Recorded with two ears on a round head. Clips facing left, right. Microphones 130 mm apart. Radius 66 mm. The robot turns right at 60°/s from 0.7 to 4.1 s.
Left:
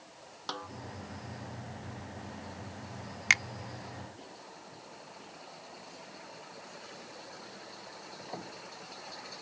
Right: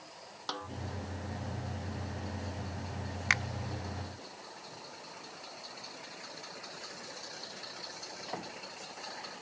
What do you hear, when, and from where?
0.5 s a snare drum: centre (ahead or behind)
3.3 s a finger snap: 25° left (ahead or behind); by 3.4 s 30° left (ahead or behind)